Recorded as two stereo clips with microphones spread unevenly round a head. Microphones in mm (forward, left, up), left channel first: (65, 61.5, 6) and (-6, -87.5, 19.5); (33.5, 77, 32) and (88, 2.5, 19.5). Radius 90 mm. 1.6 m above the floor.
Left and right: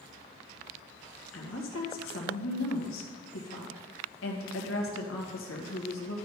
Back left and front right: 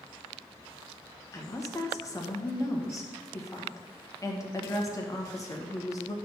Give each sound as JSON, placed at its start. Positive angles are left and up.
{"t": 1.3, "sound": "a woman speaking", "azimuth_deg": 70, "distance_m": 1.8}